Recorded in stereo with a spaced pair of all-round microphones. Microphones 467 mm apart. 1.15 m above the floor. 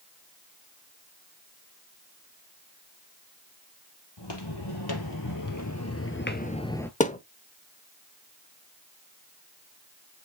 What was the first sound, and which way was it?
Footsteps, 60° left (ahead or behind).